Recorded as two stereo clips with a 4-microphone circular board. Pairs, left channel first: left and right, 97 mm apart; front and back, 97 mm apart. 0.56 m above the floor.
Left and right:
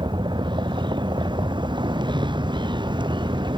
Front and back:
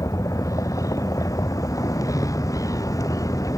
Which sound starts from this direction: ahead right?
A vehicle, at 0.0 s.